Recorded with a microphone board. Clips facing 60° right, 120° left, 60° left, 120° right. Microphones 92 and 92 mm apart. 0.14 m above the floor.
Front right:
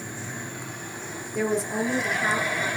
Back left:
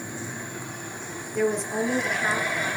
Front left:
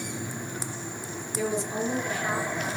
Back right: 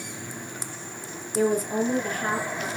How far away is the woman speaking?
About 3 m.